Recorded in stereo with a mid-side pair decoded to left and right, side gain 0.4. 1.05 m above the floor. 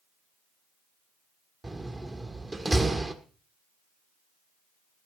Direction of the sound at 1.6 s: 25° right.